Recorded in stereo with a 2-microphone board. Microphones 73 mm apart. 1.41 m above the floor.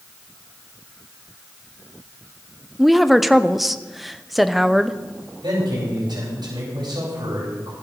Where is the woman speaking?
Centre (ahead or behind), 0.9 m.